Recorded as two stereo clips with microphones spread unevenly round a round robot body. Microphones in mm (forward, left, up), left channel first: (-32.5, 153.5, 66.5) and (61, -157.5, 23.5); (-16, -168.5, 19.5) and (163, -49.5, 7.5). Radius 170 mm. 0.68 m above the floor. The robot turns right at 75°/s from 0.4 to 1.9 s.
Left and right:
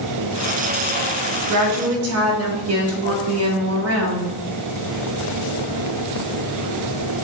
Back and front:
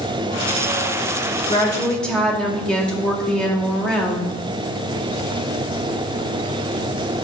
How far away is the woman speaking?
About 1.7 m.